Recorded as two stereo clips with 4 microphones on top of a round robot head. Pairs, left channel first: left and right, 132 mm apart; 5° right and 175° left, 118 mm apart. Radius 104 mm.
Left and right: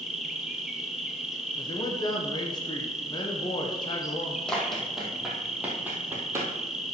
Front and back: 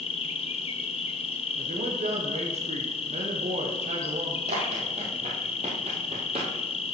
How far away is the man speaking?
About 1.2 m.